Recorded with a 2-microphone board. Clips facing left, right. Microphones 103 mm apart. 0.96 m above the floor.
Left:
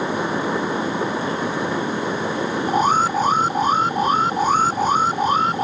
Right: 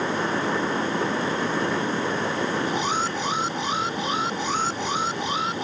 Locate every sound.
2.7 s an alarm: 45° left (ahead or behind)